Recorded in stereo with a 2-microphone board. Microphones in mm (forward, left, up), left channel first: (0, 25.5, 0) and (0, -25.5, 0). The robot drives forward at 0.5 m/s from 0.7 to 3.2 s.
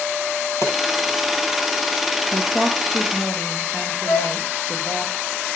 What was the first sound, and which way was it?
A pop, 70° left (ahead or behind).